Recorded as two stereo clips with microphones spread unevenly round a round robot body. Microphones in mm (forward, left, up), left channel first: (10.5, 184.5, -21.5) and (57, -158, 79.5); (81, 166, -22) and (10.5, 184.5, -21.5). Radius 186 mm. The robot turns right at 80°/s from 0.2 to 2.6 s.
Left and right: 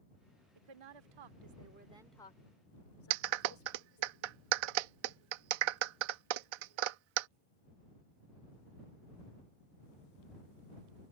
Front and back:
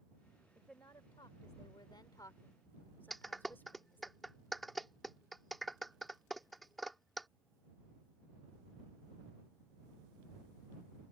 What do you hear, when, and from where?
0.6 s a woman speaking: 115° right; by 4.1 s 50° left
3.1 s a clap: 105° right